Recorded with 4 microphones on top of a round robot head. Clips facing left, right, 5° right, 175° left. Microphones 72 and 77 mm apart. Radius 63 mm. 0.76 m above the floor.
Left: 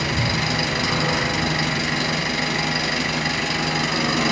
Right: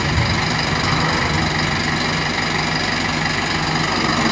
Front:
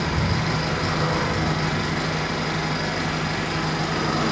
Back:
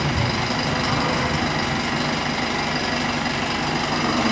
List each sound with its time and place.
0.0 s an engine running: 135° right, 3 m